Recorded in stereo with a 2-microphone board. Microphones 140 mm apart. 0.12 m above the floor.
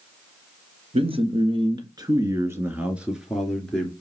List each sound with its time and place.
0.9 s a man speaking: 50° right (ahead or behind), 2.5 m; by 3.9 s 10° left (ahead or behind), 2.5 m